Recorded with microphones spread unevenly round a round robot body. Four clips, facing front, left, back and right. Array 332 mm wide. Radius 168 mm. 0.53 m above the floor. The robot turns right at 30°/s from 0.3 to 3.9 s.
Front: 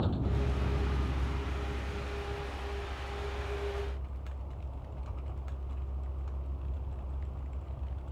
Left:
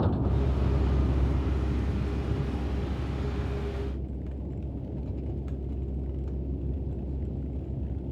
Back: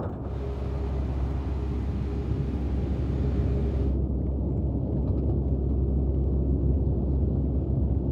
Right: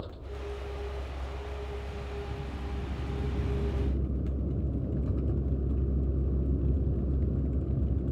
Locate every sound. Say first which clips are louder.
0.0 s a vehicle: left 12 dB, even; 85° left; by 8.1 s 170° right